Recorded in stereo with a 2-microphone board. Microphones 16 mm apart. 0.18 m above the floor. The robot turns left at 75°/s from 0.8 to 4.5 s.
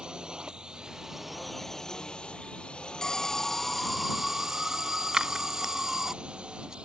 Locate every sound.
0.0 s a drone: 50° right (ahead or behind); by 6.8 s 70° right (ahead or behind)
3.0 s an alarm: 75° left; by 6.1 s 35° right
5.1 s scissors: 40° right (ahead or behind)